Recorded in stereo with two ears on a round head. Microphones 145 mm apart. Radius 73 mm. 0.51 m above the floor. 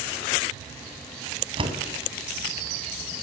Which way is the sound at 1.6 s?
35° right (ahead or behind).